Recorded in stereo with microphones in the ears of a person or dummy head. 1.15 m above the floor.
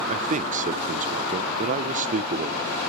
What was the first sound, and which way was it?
A man speaking, 40° right (ahead or behind).